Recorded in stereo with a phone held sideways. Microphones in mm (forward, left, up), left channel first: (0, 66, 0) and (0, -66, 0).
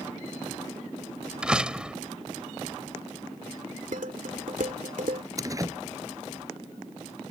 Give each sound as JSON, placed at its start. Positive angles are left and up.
{"t": 1.4, "sound": "a door slam", "side_deg": -5}
{"t": 3.9, "sound": "dishes clattering", "side_deg": -80}
{"t": 5.4, "sound": "a door slam", "side_deg": -25}